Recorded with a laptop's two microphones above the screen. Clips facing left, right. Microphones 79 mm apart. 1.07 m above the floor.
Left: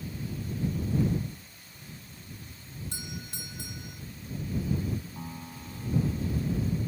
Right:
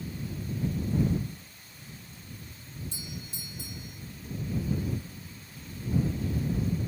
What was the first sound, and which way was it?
A doorbell, 65° left (ahead or behind).